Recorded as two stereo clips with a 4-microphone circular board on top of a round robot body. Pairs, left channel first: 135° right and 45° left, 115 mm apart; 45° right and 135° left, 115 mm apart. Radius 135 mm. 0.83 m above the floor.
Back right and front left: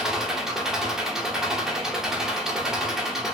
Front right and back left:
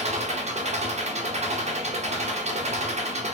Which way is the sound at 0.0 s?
130° left.